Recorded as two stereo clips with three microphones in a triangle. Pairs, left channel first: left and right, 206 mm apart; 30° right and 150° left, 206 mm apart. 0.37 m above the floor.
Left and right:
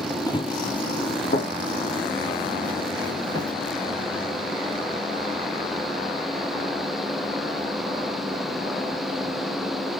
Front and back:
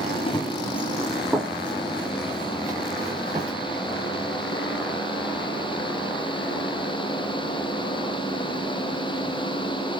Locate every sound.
0.3 s running footsteps: 20° left, 0.5 m; by 3.5 s 80° left, 1.9 m